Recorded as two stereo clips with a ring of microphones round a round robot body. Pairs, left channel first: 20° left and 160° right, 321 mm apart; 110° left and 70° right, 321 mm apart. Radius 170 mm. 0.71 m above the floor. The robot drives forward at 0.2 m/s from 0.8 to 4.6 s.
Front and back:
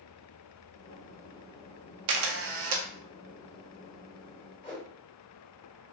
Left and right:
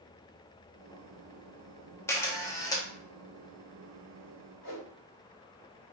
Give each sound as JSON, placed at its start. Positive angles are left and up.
{"t": 2.1, "sound": "a camera shutter", "azimuth_deg": -165, "distance_m": 0.6}
{"t": 4.6, "sound": "a whoosh", "azimuth_deg": 100, "distance_m": 1.8}